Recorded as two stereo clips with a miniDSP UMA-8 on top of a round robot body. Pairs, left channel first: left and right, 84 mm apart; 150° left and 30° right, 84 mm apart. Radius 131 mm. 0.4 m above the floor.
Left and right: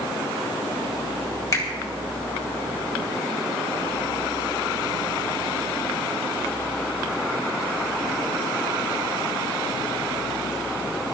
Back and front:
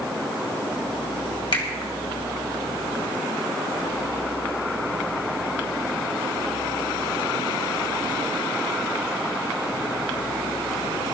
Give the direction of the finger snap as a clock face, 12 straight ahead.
7 o'clock.